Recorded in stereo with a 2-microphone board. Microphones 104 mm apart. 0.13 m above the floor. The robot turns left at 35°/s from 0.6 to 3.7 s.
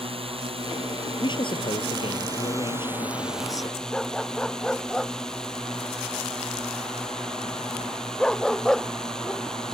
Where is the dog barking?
5° left (ahead or behind).